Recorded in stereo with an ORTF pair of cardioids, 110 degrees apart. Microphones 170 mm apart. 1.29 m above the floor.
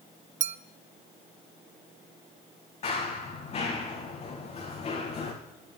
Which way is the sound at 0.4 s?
45° right.